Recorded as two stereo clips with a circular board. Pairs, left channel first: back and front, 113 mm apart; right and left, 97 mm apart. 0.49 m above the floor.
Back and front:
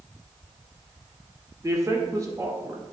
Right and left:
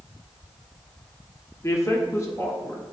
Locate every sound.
1.6 s a man speaking: 45° right, 1.5 m